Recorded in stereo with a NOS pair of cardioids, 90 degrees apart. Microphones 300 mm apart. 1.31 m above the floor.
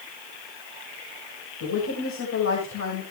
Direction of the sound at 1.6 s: 55° left.